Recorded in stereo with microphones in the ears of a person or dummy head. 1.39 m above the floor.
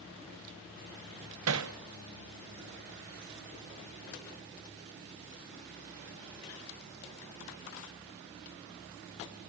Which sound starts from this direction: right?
Hammering, at 1.5 s.